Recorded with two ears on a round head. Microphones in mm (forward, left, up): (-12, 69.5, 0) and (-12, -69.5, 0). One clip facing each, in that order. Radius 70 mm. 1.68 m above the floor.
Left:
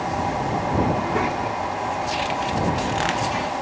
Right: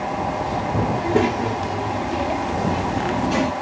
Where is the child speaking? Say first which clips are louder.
Right 4 dB; 35° right (ahead or behind); by 3.5 s 60° right (ahead or behind).